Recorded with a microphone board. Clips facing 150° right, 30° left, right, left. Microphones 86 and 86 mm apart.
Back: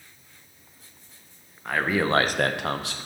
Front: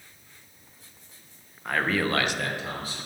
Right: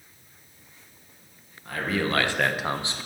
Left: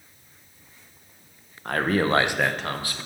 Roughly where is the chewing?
No chewing in this recording.